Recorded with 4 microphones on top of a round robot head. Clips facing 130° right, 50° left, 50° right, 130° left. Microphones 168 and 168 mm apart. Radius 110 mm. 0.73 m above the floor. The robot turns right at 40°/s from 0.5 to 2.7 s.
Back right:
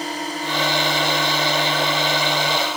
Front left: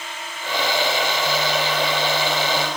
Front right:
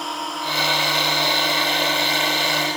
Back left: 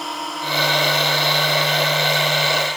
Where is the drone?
140° right; by 2.8 s 50° right.